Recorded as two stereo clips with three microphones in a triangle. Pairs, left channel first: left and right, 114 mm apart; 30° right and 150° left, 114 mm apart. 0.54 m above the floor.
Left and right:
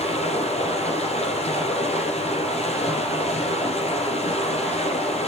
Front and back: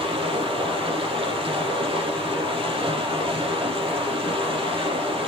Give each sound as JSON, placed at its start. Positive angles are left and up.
{"t": 0.0, "sound": "running water", "azimuth_deg": 110, "distance_m": 4.0}